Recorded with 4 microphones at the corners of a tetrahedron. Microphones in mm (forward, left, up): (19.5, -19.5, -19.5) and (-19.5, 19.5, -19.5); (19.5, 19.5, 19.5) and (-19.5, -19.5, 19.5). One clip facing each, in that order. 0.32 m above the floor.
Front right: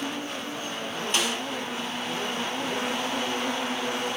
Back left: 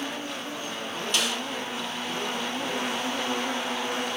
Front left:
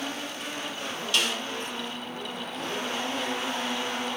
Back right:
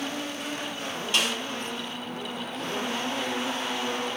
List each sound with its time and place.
1.1 s a snare drum: 85° right, 1.9 m